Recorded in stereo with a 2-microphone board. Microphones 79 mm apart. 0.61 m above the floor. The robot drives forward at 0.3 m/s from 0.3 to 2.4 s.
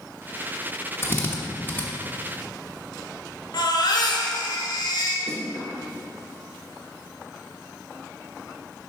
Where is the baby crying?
65° left (ahead or behind), 1.4 m.